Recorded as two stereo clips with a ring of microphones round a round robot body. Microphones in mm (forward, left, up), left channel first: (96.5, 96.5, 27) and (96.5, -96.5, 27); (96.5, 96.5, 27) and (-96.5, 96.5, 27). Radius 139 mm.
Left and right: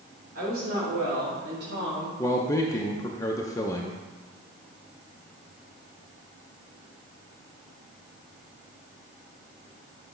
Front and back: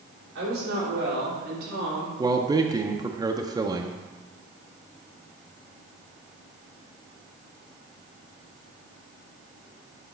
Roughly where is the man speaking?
Behind left.